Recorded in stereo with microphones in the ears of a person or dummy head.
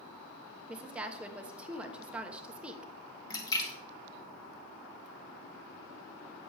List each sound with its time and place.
0.7 s a woman speaking: 5° right (ahead or behind), 1.1 m
3.3 s a splash: 25° left (ahead or behind), 1.7 m